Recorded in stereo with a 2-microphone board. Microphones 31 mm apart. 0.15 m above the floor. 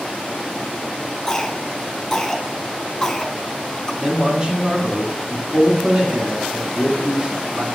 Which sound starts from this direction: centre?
A cough, at 1.3 s.